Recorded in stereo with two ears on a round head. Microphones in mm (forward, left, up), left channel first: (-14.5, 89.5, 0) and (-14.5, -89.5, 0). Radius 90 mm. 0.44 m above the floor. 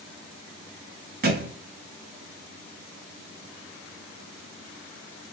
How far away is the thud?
About 0.9 m.